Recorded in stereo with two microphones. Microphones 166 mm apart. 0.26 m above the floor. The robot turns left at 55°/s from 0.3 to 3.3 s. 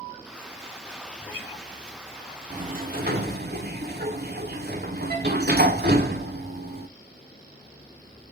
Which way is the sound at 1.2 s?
5° left (ahead or behind).